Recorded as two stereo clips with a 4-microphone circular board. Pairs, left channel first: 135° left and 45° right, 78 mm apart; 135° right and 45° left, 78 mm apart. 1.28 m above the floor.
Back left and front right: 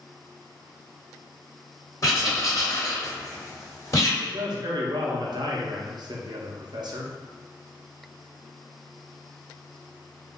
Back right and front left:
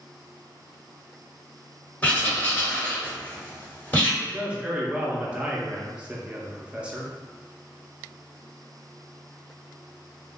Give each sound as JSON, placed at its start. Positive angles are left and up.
{"t": 2.0, "sound": "writing", "azimuth_deg": 160, "distance_m": 1.4}
{"t": 4.2, "sound": "a man speaking", "azimuth_deg": -30, "distance_m": 0.7}